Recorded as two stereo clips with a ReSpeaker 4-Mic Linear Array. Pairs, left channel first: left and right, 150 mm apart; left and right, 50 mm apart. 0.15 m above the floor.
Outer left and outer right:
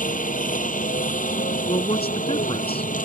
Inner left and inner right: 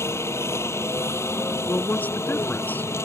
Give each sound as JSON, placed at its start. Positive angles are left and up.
{"t": 0.0, "sound": "a helicopter", "side_deg": 65}
{"t": 1.7, "sound": "a man speaking", "side_deg": 40}